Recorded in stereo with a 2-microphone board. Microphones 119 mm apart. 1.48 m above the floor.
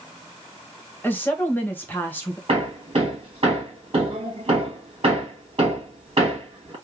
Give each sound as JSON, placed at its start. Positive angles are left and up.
{"t": 1.0, "sound": "a woman speaking", "side_deg": 15, "distance_m": 1.2}
{"t": 2.5, "sound": "hammering", "side_deg": -50, "distance_m": 1.9}